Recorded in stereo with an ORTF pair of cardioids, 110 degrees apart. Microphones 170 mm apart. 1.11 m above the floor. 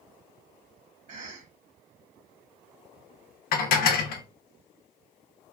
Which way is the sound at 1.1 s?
50° right.